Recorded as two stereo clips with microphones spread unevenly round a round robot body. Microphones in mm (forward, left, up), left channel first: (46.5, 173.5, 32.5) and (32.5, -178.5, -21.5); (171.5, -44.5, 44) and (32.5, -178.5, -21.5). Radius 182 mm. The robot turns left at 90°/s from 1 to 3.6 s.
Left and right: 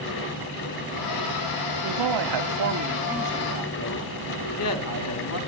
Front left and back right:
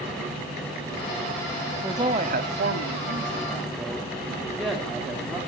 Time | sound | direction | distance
1.8 | a man speaking | 60° right | 1.7 m